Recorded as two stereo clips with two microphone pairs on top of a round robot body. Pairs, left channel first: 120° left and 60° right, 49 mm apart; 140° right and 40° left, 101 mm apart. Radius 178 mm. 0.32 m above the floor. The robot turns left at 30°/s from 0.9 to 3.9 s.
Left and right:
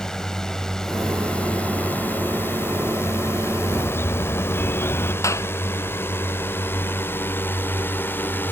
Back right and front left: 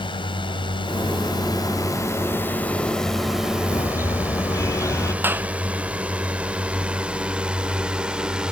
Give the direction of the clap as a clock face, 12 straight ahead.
8 o'clock.